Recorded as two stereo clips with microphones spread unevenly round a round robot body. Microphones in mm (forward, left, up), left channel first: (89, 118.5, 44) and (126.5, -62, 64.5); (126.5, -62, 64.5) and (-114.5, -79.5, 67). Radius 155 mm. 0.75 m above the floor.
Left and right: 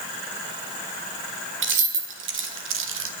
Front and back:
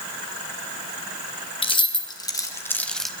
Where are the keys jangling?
65° right, 1.9 m; by 3.1 s 85° right, 1.0 m.